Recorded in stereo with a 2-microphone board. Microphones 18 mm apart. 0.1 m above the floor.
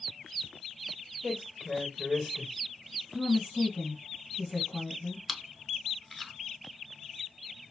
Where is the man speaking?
40° right (ahead or behind), 3.5 m.